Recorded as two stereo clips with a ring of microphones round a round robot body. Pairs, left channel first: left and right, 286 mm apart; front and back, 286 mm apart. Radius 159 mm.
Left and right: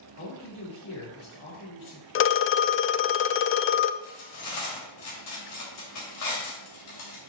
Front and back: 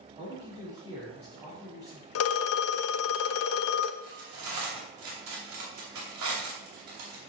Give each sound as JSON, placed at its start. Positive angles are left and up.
{"t": 0.2, "sound": "a man speaking", "azimuth_deg": 100, "distance_m": 2.5}
{"t": 2.1, "sound": "a phone ringing", "azimuth_deg": 40, "distance_m": 0.5}
{"t": 4.0, "sound": "cutlery clinking", "azimuth_deg": 135, "distance_m": 2.5}